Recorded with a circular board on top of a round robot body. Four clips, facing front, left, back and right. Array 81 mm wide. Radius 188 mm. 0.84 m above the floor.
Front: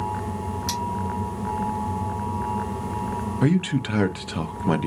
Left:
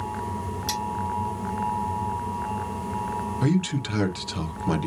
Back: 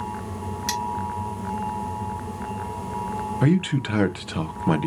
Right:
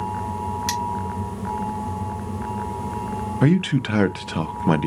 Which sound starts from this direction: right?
A man speaking, at 3.4 s.